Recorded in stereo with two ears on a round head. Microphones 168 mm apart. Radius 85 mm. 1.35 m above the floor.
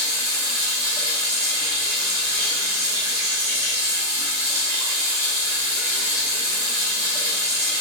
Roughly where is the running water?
Right.